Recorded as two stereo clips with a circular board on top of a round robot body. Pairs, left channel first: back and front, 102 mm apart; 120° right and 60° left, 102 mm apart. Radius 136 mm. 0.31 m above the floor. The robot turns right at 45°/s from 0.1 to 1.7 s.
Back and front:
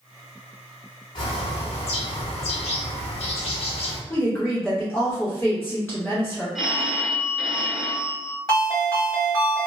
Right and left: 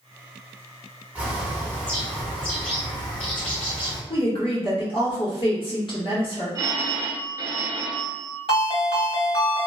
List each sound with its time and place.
1.1 s a bird: 135° left, 0.9 m; by 4.0 s 160° left, 0.9 m
4.1 s a woman speaking: 120° right, 1.9 m
6.5 s a phone ringing: 80° left, 0.8 m
8.5 s a ringtone: 130° right, 1.9 m